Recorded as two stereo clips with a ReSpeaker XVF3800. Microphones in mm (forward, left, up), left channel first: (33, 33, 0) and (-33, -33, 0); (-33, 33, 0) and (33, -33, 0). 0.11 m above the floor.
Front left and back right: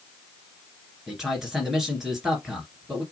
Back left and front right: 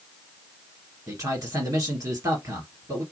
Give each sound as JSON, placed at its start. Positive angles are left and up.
{"t": 1.1, "sound": "a man speaking", "azimuth_deg": -50, "distance_m": 1.9}